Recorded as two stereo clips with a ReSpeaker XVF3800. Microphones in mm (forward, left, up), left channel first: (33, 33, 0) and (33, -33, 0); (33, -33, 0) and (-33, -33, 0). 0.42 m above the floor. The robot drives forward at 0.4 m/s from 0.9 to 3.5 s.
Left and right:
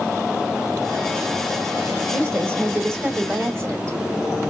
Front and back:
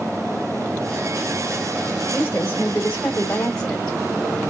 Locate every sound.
2.1 s a woman speaking: 45° right, 1.8 m; by 4.0 s 65° right, 1.6 m